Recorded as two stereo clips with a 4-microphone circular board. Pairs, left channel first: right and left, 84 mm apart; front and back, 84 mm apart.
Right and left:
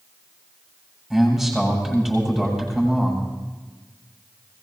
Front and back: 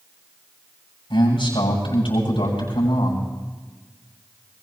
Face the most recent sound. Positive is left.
turn(degrees=0)